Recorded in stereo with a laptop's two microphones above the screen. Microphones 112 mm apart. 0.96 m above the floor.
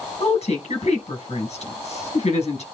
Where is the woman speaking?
65° left (ahead or behind), 7.5 m.